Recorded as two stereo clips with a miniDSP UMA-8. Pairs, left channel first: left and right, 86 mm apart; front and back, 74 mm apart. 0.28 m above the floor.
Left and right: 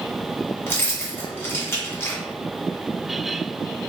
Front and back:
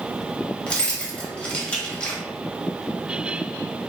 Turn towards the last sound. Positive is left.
turn(degrees=65)